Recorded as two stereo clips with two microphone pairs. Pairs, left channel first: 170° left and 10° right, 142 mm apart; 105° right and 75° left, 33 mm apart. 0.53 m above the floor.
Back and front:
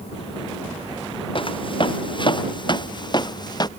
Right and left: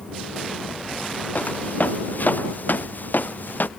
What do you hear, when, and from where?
1.4 s footsteps: 135° right; by 3.7 s 130° right